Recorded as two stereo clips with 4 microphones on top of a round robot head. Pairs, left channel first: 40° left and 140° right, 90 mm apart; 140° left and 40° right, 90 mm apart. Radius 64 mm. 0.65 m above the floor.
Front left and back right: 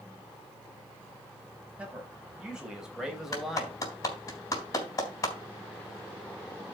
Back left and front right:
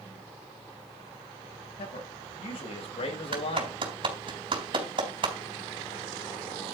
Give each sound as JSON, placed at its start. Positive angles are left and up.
{"t": 1.8, "sound": "a man speaking", "azimuth_deg": 145, "distance_m": 4.0}
{"t": 3.3, "sound": "a clap", "azimuth_deg": -15, "distance_m": 4.0}